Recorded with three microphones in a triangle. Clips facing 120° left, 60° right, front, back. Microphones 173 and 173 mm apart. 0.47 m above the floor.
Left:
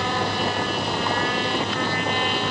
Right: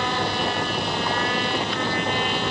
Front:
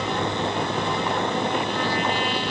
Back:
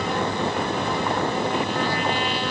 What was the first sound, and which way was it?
Only background noise.